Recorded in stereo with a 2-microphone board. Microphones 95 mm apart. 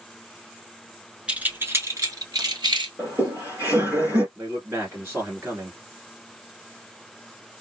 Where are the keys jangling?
15° right (ahead or behind), 0.7 m; by 2.9 s 55° right (ahead or behind), 1.2 m.